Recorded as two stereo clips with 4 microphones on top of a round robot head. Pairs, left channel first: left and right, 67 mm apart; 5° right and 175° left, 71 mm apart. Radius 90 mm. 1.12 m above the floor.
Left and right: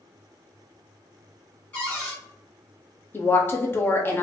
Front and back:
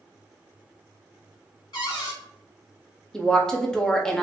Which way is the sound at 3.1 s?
65° left.